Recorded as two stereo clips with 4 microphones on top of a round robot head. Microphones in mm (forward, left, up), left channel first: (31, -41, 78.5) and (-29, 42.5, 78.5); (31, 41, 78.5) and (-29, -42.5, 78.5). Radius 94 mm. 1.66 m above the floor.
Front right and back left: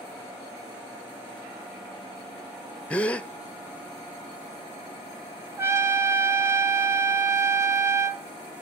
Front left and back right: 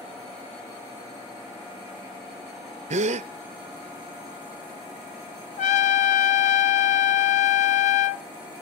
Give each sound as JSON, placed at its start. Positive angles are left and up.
{"t": 2.9, "sound": "a gasp", "azimuth_deg": -135, "distance_m": 0.5}
{"t": 5.6, "sound": "a trumpet", "azimuth_deg": 55, "distance_m": 0.8}